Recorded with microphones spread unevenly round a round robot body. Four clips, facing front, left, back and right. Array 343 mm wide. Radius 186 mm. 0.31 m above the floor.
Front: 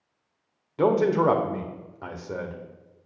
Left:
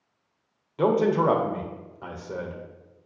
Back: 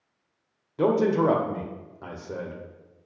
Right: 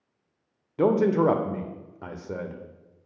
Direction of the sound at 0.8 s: 85° right.